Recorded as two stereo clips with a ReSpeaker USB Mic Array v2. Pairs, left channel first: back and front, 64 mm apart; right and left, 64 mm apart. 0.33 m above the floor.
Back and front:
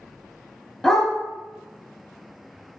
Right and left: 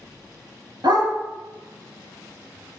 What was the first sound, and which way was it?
A dog barking, 100° left.